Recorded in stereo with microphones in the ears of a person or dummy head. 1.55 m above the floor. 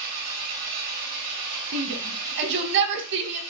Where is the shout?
65° right (ahead or behind), 1.0 m.